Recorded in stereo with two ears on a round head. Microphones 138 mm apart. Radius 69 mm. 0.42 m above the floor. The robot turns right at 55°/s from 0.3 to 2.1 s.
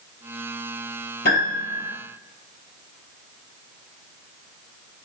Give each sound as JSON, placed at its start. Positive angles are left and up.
{"t": 1.2, "sound": "a piano", "azimuth_deg": 120, "distance_m": 5.0}